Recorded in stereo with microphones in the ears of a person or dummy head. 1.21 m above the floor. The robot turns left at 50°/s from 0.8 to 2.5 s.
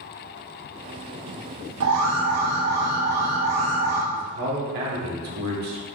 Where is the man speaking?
75° right (ahead or behind), 3 m.